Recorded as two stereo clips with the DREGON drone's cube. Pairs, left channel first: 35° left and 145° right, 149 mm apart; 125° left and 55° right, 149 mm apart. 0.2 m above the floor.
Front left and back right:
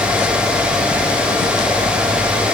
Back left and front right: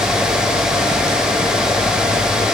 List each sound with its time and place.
Only background noise.